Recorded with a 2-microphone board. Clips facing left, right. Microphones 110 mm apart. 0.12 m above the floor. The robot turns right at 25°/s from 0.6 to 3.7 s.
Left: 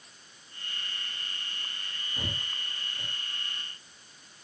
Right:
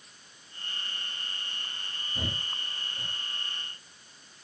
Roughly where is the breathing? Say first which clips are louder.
Right 2 dB; right.